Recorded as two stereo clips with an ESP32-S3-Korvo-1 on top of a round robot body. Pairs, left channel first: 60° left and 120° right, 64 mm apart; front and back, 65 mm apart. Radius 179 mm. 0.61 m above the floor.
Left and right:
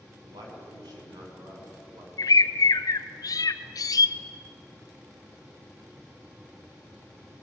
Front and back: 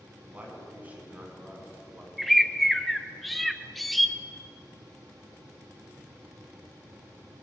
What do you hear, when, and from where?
0.2 s a man speaking: 115° right, 6.5 m
2.2 s a bird: 85° left, 0.6 m